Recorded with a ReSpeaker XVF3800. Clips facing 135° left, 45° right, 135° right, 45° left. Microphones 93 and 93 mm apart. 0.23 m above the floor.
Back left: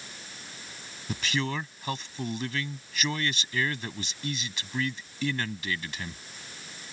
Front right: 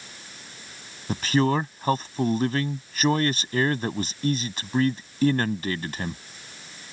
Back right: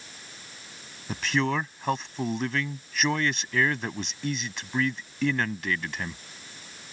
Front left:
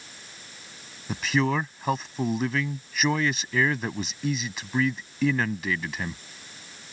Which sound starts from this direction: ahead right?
A man speaking, at 1.1 s.